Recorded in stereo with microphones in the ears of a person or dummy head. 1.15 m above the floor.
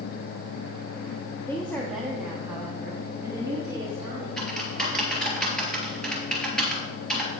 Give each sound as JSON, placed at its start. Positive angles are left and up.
{"t": 1.5, "sound": "a woman speaking", "side_deg": 15, "distance_m": 0.9}
{"t": 4.4, "sound": "typing on a keyboard", "side_deg": 5, "distance_m": 3.0}